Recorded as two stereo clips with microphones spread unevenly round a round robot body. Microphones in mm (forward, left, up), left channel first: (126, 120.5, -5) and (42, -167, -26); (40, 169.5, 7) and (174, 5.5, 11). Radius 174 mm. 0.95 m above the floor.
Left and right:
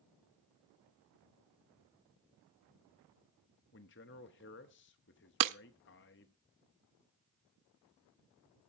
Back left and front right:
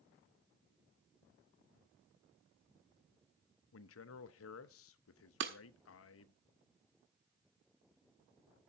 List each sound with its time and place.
3.7 s a man speaking: 135° left, 0.7 m
5.4 s breaking glass: 95° right, 0.6 m